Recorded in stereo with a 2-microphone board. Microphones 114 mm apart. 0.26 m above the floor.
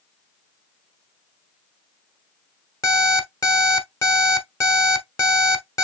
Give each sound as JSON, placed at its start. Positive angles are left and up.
{"t": 2.8, "sound": "an alarm clock", "side_deg": 30, "distance_m": 1.1}